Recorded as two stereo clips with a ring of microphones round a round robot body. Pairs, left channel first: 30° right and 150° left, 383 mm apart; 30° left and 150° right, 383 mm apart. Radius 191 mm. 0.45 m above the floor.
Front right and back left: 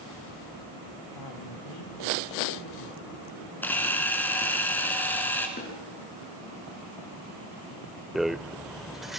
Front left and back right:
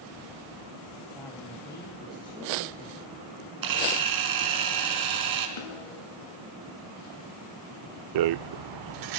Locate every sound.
1.1 s a man speaking: 55° right, 3 m; by 3.1 s 45° right, 4.5 m
3.6 s a camera shutter: 115° right, 3.5 m
5.6 s a snare drum: 35° left, 6.5 m
8.2 s a rattle: 120° right, 0.5 m